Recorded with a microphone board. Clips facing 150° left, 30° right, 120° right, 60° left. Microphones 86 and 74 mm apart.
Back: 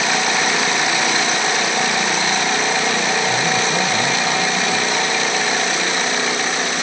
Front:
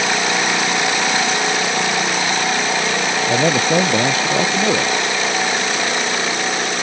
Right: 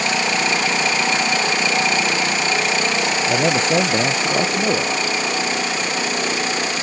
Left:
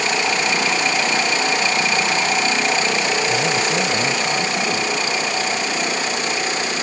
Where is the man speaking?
65° right.